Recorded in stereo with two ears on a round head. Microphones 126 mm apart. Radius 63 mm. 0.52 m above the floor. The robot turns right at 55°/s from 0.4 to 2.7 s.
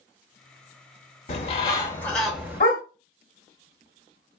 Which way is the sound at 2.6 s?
60° left (ahead or behind).